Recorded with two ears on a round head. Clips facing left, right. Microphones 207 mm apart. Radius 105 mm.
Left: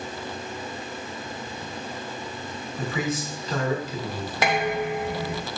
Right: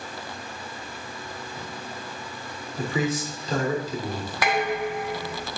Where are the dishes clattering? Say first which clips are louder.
Left 1 dB; 20° left (ahead or behind), 1.5 m.